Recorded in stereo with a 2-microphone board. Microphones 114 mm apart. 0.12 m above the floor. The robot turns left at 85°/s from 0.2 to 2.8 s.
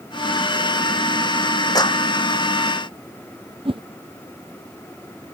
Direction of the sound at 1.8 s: 35° left (ahead or behind).